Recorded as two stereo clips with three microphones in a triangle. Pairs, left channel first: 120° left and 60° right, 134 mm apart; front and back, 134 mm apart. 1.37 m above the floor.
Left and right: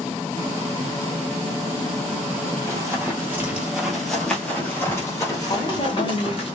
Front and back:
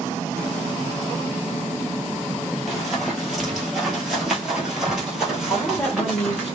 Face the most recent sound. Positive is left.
turn(degrees=75)